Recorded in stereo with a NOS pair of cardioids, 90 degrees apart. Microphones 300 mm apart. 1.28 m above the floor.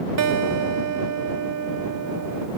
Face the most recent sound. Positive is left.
turn(degrees=-65)